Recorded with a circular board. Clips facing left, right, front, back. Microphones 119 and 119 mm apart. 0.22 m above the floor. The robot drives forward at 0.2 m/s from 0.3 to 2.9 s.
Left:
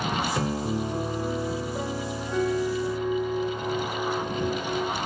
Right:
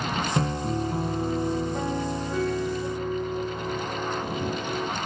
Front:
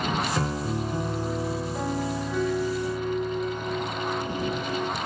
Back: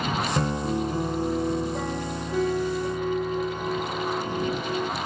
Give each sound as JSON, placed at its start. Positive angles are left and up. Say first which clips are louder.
{"t": 0.3, "sound": "a piano", "louder": "right 1 dB, back 2 dB", "azimuth_deg": -130, "distance_m": 2.5}